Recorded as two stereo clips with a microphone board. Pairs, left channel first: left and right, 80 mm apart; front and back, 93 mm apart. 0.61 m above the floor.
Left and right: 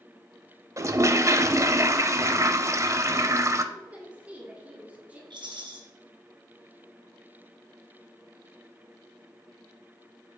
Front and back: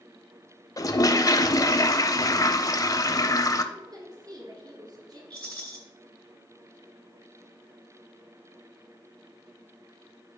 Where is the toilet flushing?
45° right, 0.6 m.